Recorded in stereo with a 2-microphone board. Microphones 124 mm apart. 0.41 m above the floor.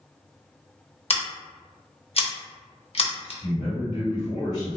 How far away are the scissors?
About 0.6 m.